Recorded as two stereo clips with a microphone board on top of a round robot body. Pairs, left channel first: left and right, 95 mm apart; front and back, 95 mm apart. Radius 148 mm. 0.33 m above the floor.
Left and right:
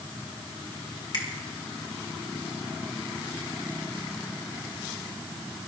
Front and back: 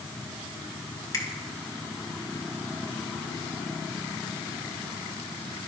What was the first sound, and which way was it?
A finger snap, 55° left.